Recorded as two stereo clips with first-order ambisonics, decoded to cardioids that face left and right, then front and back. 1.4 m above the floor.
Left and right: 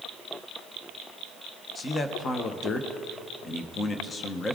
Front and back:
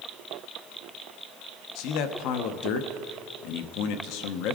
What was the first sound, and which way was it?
A man speaking, 20° left.